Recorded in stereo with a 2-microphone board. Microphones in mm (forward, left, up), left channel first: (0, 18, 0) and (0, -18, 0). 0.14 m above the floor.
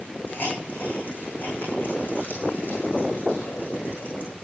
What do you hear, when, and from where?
0.3 s a hiss: 55° left (ahead or behind), 6.5 m